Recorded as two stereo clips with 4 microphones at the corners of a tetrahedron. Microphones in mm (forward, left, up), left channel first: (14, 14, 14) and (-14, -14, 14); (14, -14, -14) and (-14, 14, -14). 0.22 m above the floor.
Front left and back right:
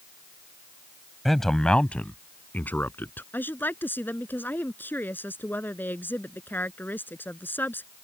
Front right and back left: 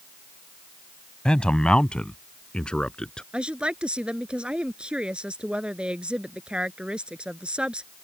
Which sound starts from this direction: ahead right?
A man speaking, at 1.2 s.